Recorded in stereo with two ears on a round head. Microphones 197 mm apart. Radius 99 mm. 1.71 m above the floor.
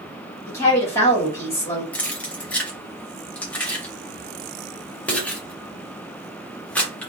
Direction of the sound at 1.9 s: 5° left (ahead or behind).